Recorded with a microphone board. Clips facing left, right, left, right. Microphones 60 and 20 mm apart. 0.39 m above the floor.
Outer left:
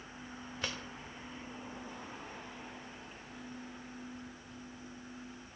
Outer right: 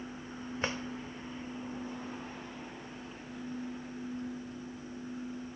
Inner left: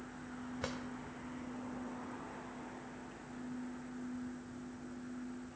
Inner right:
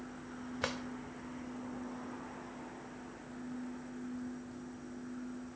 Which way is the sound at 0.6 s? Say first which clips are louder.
Outer right 5 dB, inner right 5 dB; 30° right (ahead or behind).